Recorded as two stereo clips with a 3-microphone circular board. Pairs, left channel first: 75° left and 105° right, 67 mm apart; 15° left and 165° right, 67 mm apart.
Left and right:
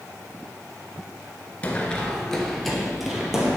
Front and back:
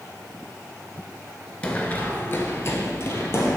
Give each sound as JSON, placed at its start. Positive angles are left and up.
{"t": 1.6, "sound": "running footsteps", "azimuth_deg": 45, "distance_m": 1.2}